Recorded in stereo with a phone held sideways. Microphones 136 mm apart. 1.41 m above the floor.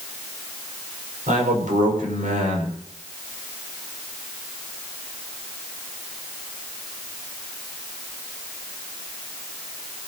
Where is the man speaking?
90° right, 6 m.